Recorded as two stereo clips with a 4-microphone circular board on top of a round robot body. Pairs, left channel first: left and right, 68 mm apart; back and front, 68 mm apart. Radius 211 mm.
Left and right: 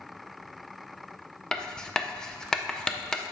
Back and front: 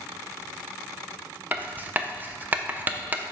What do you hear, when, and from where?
1.5 s writing: 25° left, 0.8 m